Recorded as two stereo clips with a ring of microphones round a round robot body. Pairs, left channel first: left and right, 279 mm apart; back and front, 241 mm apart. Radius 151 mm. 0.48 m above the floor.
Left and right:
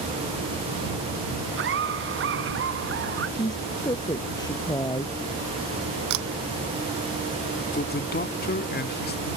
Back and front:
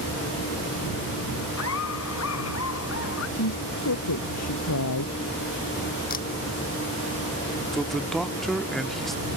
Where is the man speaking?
90° left.